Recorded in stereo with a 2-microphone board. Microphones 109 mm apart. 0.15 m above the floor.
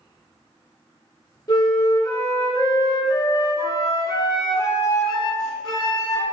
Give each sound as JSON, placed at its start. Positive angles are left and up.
{"t": 1.5, "sound": "a flute", "side_deg": 40, "distance_m": 0.6}